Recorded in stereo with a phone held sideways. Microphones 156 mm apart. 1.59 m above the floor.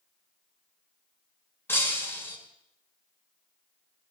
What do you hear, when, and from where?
1.7 s breaking glass: 15° left (ahead or behind), 3.5 m